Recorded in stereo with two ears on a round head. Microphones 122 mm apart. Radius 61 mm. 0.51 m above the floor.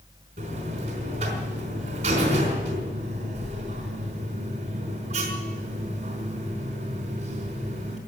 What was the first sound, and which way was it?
A buzzer, 50° right (ahead or behind).